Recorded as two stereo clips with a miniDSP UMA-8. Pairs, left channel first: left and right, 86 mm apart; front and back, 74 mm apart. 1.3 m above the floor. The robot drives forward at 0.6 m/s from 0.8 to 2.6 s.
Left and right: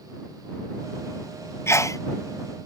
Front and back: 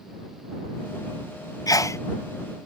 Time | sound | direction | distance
1.7 | a sneeze | 30° left | ?